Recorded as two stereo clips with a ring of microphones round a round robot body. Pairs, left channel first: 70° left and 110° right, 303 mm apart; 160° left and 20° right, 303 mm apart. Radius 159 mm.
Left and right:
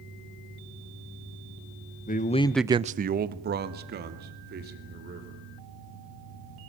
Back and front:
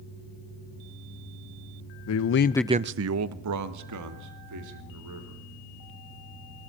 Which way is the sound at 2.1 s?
130° left.